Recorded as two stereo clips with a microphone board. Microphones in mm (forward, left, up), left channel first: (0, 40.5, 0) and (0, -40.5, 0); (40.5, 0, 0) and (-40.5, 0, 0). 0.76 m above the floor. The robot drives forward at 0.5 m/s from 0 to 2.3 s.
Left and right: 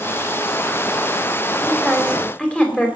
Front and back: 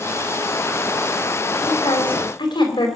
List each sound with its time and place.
1.6 s a woman speaking: 10° left, 4 m; by 2.9 s 15° left, 3.5 m